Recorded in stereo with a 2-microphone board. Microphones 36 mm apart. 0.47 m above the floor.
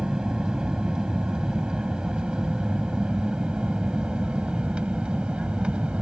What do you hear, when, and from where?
0.0 s an aircraft: 20° right (ahead or behind); by 6.0 s 30° right (ahead or behind)